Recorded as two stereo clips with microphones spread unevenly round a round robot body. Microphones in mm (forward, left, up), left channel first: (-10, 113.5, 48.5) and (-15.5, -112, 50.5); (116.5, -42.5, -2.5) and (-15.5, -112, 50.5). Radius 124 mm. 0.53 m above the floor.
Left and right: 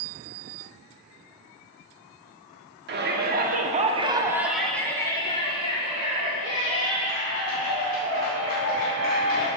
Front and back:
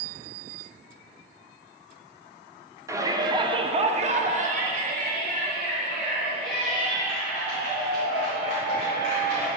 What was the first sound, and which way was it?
A shout, 70° right.